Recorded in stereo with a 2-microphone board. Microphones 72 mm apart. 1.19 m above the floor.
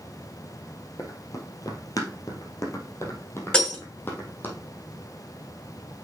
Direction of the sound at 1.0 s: 50° left (ahead or behind).